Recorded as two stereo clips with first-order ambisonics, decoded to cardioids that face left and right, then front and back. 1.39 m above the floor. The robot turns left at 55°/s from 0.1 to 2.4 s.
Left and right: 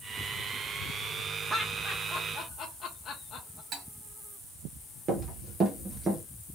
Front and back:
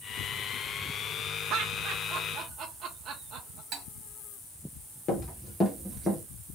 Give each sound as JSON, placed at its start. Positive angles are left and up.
{"t": 1.5, "sound": "laughter", "azimuth_deg": -170, "distance_m": 0.7}
{"t": 3.7, "sound": "cutlery clinking", "azimuth_deg": -140, "distance_m": 2.0}
{"t": 5.1, "sound": "running footsteps", "azimuth_deg": -50, "distance_m": 1.8}